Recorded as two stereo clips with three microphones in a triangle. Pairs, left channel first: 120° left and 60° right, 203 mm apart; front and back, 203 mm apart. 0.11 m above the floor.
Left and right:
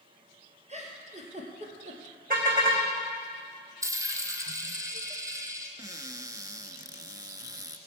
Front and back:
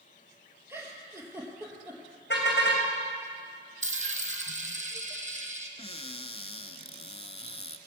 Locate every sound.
0.7 s a giggle: 105° right, 2.5 m
2.3 s a car horn: 20° right, 3 m
3.8 s a dropped coin: 135° right, 1.4 m
5.8 s a cupboard door: 10° right, 0.6 m